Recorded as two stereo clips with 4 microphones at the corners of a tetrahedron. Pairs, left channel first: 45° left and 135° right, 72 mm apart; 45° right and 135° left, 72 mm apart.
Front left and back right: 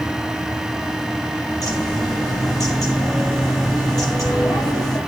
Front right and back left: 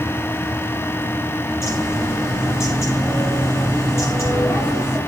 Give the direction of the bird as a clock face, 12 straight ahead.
12 o'clock.